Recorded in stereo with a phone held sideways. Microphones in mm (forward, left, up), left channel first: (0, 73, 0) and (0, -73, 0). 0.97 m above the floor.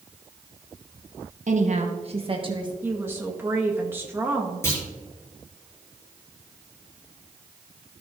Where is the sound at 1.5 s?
60° right (ahead or behind), 1.1 m; by 2.7 s 30° right (ahead or behind), 1.3 m.